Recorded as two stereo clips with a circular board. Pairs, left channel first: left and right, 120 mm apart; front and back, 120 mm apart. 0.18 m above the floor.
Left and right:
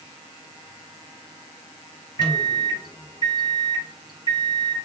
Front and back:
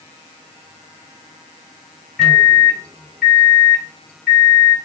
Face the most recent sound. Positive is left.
turn(degrees=85)